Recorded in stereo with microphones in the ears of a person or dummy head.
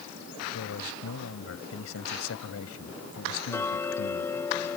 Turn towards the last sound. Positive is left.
turn(degrees=15)  # may be behind; listen again after turning